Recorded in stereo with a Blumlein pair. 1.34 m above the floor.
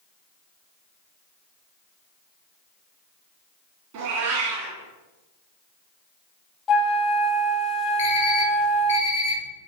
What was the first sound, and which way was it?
A cat meowing, 45° right.